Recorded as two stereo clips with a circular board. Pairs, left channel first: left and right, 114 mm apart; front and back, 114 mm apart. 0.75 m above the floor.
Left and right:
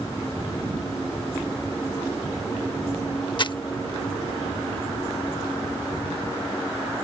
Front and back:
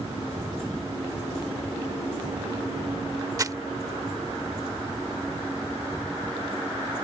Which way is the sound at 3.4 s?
125° left.